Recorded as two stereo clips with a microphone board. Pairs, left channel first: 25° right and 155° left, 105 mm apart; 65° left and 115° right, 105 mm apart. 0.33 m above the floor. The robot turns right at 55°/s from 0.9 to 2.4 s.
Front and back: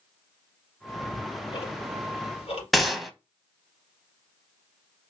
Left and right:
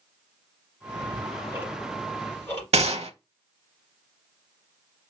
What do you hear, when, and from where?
0.9 s ticking: 85° right, 2 m; by 2.6 s straight ahead, 2 m
2.7 s a gunshot: 115° right, 0.6 m